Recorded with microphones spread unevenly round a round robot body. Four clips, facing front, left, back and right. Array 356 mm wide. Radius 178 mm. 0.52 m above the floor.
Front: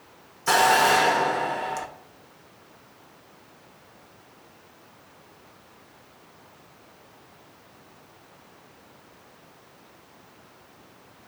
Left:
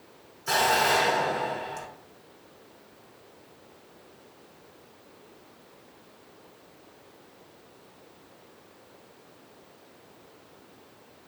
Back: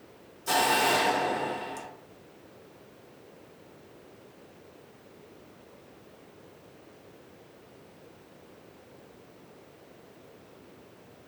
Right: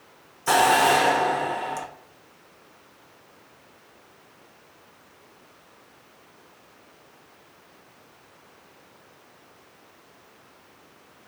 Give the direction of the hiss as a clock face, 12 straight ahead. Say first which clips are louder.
Right 5 dB, front 6 dB; 2 o'clock.